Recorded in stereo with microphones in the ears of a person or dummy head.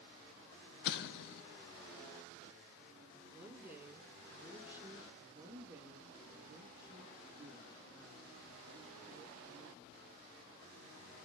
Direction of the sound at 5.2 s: 15° right (ahead or behind).